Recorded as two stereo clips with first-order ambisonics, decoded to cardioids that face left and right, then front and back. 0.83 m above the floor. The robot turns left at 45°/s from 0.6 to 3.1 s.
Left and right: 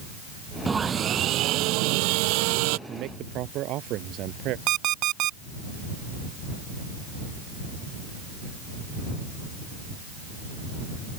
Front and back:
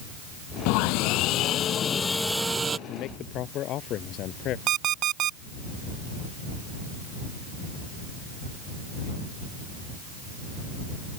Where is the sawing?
15° right; by 2.8 s 110° right.